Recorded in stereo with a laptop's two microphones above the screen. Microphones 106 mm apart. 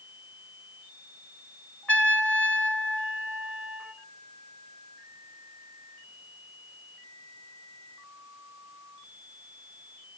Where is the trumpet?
10° left (ahead or behind), 3 m.